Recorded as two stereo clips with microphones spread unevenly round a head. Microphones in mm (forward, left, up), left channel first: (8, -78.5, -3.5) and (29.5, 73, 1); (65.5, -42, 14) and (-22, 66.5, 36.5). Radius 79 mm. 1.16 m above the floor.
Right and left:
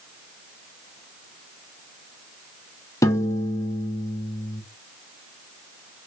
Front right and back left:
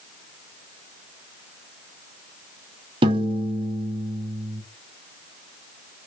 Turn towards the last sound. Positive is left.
turn(degrees=-170)